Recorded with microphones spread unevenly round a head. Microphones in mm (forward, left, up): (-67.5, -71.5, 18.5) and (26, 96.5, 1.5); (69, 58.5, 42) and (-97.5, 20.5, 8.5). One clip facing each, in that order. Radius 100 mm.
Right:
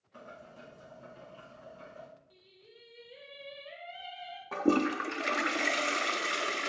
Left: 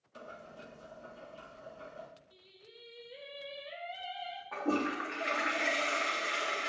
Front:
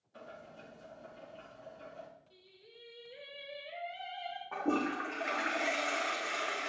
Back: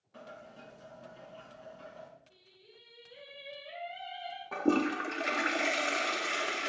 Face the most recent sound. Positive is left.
turn(degrees=-110)